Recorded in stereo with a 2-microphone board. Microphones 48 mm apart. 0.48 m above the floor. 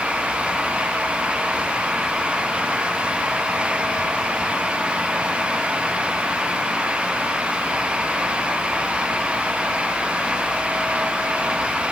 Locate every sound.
Only background noise.